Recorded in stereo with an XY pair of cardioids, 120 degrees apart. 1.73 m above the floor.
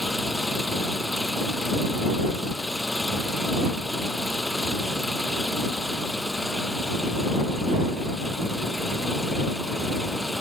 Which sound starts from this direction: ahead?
An engine running, at 0.0 s.